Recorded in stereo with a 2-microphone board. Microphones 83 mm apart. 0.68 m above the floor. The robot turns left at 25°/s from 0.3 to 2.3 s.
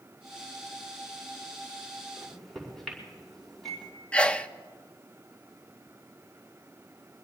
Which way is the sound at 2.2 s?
5° left (ahead or behind).